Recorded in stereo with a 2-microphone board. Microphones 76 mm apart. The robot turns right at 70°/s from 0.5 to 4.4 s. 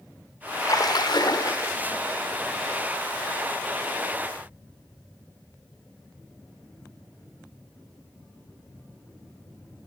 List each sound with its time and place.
0.6 s a splash: 55° left, 1.4 m; by 1.7 s 135° left, 1.4 m